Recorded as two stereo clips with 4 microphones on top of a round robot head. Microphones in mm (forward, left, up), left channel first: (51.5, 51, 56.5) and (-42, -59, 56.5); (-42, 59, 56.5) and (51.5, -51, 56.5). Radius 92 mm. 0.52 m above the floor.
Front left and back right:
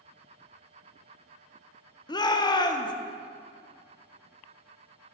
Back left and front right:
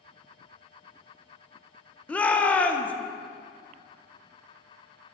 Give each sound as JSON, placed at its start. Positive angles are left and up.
{"t": 2.1, "sound": "a shout", "azimuth_deg": 60, "distance_m": 0.7}